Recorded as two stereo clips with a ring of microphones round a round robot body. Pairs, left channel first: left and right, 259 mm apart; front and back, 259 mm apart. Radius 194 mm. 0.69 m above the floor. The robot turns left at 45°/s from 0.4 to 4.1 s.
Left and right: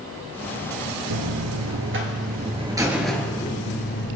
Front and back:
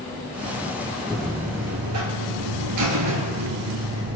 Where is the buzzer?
90° right, 2 m; by 4.2 s 135° left, 2 m.